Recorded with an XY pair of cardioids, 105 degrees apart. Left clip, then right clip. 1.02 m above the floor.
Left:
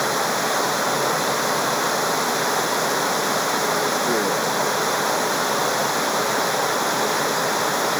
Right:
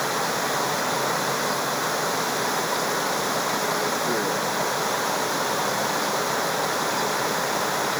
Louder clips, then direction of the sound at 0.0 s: Left 3 dB; 25° left.